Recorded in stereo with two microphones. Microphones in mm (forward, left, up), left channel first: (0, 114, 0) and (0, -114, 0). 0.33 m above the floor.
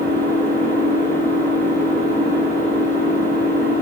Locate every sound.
0.0 s an engine running: 45° right (ahead or behind), 10 m